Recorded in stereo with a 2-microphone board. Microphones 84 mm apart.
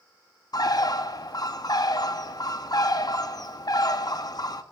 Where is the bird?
50° left (ahead or behind), 0.5 m.